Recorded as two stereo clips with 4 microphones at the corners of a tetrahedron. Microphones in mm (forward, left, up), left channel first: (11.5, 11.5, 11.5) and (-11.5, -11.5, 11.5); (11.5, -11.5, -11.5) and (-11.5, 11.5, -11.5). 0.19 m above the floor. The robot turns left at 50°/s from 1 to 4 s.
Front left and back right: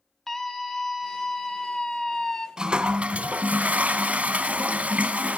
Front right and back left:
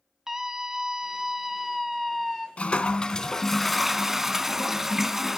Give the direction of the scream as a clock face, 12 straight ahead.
8 o'clock.